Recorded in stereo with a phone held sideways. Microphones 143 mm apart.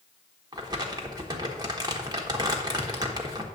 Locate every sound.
0.5 s crumpling: 30° right (ahead or behind), 1.3 m